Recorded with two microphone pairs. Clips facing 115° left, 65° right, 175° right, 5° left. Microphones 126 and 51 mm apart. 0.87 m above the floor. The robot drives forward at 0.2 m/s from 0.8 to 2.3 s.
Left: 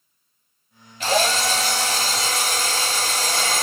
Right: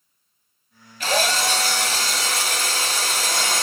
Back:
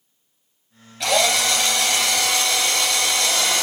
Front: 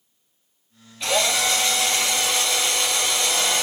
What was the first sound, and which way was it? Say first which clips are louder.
A drill: left 2 dB, back 3 dB; 175° left.